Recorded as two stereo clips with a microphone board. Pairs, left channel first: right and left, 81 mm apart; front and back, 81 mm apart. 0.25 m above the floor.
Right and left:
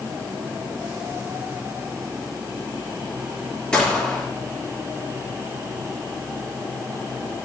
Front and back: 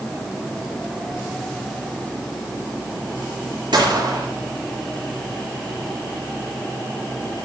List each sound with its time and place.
3.7 s a gunshot: 170° right, 4 m